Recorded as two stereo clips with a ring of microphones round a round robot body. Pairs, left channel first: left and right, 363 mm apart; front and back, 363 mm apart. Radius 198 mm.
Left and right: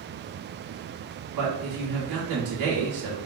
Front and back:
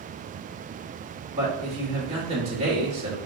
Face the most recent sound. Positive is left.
turn(degrees=-110)